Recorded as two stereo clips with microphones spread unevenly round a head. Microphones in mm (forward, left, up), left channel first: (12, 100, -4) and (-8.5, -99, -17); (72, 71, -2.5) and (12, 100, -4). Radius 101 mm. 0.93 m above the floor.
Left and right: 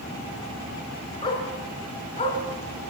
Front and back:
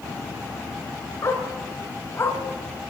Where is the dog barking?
20° left, 5.5 m; by 2.4 s 25° left, 4.5 m.